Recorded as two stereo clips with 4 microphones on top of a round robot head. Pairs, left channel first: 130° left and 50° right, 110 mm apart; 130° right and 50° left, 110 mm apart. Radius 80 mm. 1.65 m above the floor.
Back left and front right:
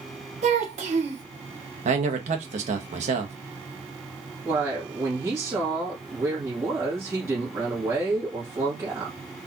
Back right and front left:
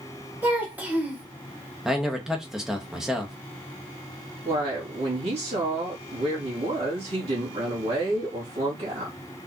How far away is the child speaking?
About 1.1 m.